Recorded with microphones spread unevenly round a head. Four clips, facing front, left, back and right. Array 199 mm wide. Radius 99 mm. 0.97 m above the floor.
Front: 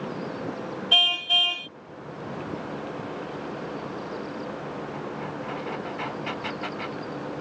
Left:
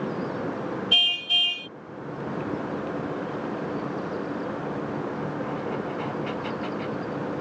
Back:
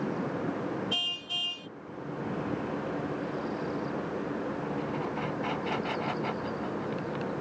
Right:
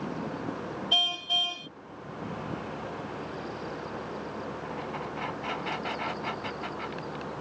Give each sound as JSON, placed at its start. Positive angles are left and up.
{"t": 0.9, "sound": "a car horn", "azimuth_deg": -25}